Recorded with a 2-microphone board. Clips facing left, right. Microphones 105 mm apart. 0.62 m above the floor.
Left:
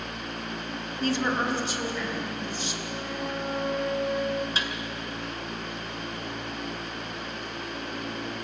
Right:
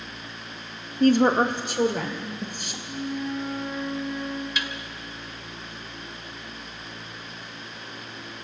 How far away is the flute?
About 2.5 m.